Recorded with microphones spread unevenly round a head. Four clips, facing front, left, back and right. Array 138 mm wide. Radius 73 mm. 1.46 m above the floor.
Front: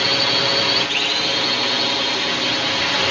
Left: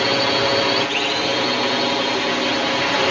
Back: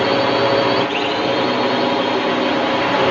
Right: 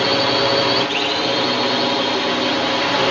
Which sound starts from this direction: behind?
A drone, at 0.0 s.